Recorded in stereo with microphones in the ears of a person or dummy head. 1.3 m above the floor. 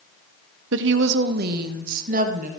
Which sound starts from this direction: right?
A woman speaking, at 0.7 s.